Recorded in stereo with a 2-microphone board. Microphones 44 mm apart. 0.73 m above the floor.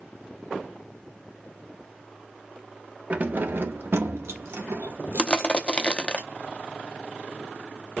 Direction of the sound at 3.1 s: 40° right (ahead or behind).